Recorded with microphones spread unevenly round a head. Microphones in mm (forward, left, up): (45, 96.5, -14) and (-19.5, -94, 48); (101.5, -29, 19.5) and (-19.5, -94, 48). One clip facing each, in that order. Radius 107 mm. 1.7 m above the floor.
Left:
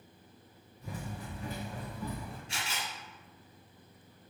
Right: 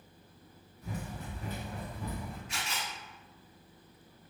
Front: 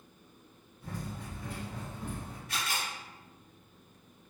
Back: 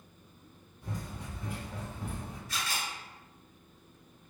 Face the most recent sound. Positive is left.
turn(degrees=5)